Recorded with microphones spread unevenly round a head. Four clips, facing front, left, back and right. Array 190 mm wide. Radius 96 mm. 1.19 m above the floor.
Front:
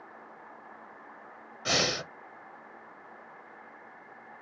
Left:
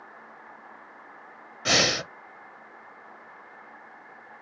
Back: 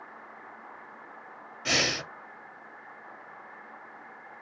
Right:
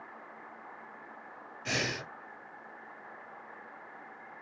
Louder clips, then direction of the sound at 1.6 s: Left 9 dB, even; 100° left.